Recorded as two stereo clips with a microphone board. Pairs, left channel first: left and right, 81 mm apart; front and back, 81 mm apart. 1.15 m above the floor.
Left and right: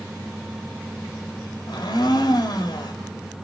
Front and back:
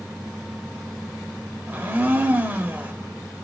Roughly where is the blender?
Behind left.